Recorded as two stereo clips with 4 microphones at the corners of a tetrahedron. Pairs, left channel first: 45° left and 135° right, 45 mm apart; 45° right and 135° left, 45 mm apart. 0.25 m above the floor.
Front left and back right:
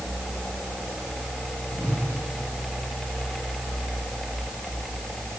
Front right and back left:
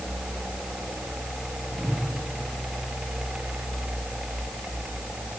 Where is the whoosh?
5° left, 7.5 m.